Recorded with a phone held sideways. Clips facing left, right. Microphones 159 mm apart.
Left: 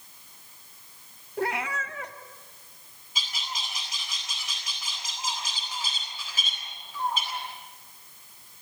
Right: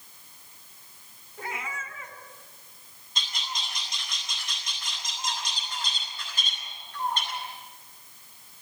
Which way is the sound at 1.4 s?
75° left (ahead or behind).